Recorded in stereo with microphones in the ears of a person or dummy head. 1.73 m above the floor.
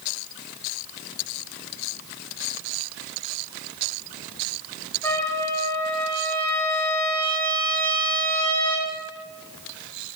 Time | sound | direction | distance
5.0 | a trumpet | 15° left (ahead or behind) | 2 m